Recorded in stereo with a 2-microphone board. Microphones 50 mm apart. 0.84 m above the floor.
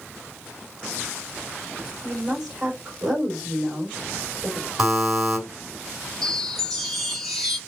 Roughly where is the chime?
Centre.